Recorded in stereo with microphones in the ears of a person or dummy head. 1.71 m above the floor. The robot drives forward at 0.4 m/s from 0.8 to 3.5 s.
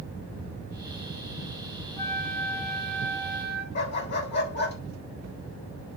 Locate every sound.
2.0 s a flute: 10° left (ahead or behind), 4 m
3.8 s a dog barking: 50° left (ahead or behind), 3 m